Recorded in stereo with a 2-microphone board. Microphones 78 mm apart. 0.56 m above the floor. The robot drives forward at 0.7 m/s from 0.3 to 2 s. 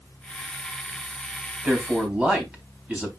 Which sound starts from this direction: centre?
A man speaking, at 1.6 s.